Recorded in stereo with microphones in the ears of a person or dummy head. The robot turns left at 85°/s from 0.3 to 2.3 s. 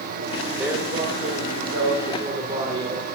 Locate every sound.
0.6 s a man speaking: 10° right, 1.8 m; by 3.0 s 155° right, 1.8 m